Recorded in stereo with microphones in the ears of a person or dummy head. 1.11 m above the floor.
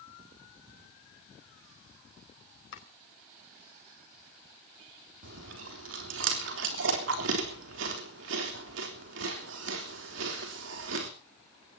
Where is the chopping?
70° left (ahead or behind), 5 m.